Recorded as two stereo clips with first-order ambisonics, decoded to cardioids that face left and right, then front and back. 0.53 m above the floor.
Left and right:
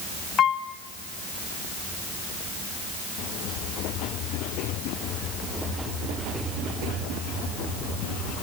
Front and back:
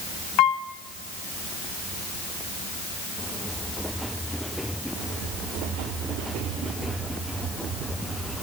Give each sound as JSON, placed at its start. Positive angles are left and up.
{"t": 0.4, "sound": "a piano", "azimuth_deg": 25, "distance_m": 1.8}